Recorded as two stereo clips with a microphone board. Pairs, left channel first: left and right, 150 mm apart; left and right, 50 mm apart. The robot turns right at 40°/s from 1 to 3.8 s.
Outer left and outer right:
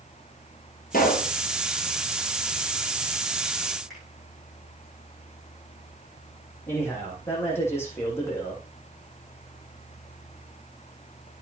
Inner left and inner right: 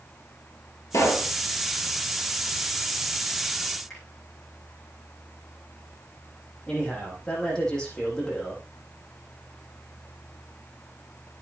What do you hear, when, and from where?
0.9 s a pop: 70° left (ahead or behind), 2.5 m; by 1.3 s 65° left (ahead or behind), 2.5 m
3.9 s a finger snap: centre (ahead or behind), 8.5 m
6.7 s a man speaking: 15° left (ahead or behind), 7 m